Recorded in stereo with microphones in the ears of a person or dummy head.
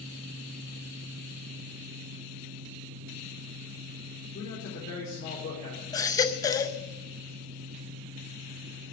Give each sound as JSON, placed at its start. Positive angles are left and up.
{"t": 4.3, "sound": "a man speaking", "side_deg": 60, "distance_m": 4.0}
{"t": 5.9, "sound": "a baby crying", "side_deg": 25, "distance_m": 0.6}